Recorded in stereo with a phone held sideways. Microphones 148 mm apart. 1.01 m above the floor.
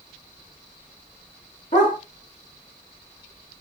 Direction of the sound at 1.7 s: 60° left (ahead or behind).